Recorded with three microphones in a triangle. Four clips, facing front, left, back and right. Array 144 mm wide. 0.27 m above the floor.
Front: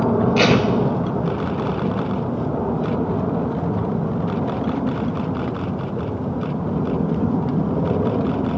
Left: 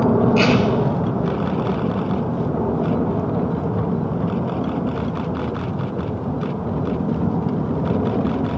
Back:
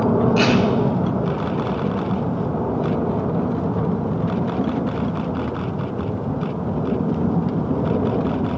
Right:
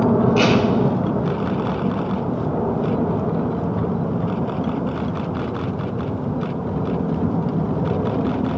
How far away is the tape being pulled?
About 1.3 m.